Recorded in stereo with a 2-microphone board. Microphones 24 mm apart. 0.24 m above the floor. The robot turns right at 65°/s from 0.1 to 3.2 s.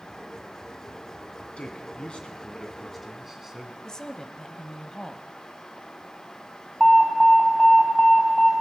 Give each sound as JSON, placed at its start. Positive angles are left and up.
{"t": 1.6, "sound": "a man speaking", "azimuth_deg": 90, "distance_m": 2.0}
{"t": 3.8, "sound": "a woman speaking", "side_deg": 30, "distance_m": 1.0}
{"t": 6.8, "sound": "an alarm", "side_deg": 5, "distance_m": 2.5}